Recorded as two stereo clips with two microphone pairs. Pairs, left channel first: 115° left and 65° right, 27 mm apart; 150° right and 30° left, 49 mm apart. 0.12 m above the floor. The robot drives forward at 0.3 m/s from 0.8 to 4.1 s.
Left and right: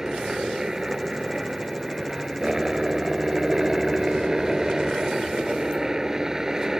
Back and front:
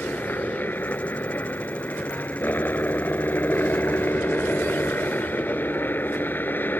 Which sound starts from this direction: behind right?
A helicopter, at 0.0 s.